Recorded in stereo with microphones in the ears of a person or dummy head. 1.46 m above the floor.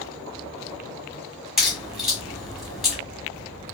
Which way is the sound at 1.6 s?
5° right (ahead or behind).